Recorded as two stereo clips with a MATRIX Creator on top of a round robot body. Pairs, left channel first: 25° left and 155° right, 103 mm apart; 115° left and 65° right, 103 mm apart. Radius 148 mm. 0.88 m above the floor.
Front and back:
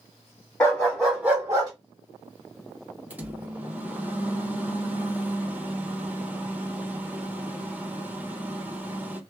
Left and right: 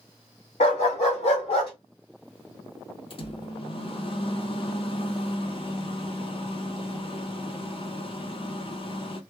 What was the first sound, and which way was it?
A dog barking, 90° left.